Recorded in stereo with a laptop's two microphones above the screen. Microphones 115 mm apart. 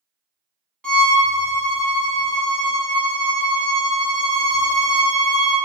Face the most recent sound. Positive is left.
turn(degrees=10)  # may be behind; listen again after turning